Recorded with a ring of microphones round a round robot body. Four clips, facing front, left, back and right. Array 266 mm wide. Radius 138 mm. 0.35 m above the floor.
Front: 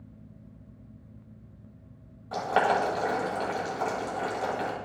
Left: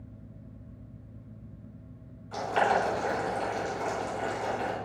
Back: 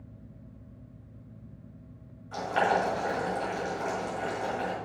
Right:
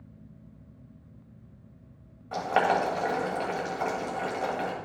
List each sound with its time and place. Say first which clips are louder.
2.3 s boiling: right 1 dB, front 2 dB; 50° right, 1.9 m